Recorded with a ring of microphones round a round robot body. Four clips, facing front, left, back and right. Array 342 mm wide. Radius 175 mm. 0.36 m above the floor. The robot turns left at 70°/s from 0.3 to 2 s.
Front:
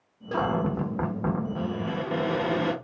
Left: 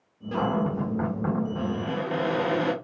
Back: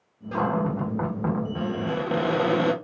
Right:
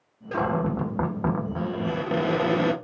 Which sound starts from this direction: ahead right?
A cupboard door, at 0.3 s.